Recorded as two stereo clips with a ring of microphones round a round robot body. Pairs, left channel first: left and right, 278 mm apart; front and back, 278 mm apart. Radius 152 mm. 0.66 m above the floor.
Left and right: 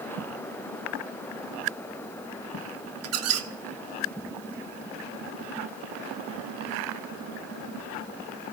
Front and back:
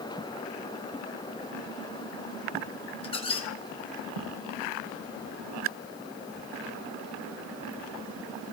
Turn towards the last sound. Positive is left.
turn(degrees=-70)